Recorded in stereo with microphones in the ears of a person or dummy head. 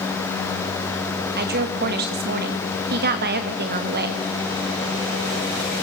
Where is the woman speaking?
45° right (ahead or behind), 2 m.